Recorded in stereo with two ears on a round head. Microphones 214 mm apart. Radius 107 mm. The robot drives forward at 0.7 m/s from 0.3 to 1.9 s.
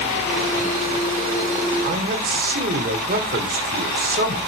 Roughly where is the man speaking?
Right.